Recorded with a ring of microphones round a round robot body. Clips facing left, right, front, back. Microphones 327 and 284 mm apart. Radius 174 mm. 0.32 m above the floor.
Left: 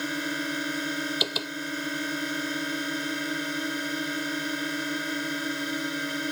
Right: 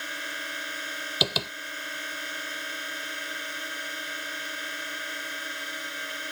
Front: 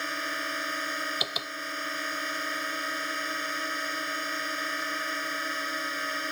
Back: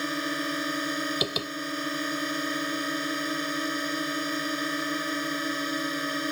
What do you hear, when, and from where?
0.0 s a drone: 130° left
1.2 s tapping: 115° right